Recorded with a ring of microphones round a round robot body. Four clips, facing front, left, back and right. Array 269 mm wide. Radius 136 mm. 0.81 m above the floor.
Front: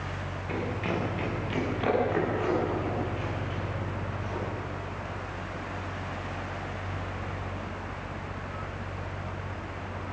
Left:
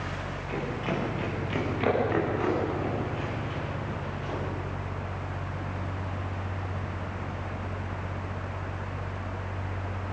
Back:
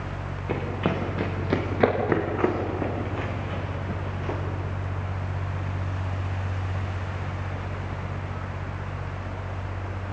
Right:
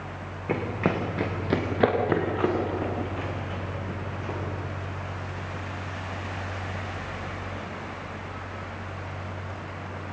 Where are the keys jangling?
I don't hear keys jangling.